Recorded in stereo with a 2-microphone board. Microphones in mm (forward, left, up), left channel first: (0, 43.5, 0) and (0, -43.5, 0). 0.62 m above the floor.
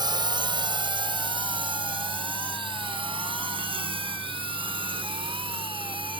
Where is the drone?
55° right (ahead or behind); by 6.2 s 80° right.